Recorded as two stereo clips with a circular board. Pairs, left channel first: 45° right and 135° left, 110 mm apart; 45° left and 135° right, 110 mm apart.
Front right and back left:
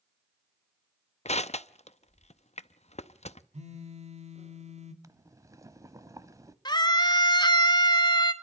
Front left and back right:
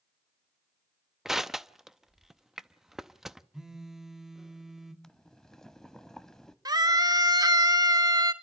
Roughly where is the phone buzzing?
Behind left.